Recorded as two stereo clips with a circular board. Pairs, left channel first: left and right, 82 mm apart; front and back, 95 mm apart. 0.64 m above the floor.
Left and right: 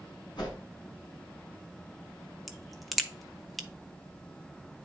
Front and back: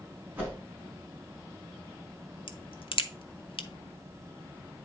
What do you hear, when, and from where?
0.4 s a whoosh: 110° left, 4 m
2.5 s a crack: straight ahead, 0.7 m